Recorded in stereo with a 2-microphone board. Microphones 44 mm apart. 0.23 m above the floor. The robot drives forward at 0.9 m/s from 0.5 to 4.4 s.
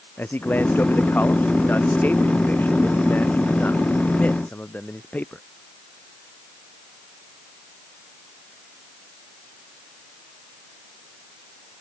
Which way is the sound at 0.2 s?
45° left (ahead or behind).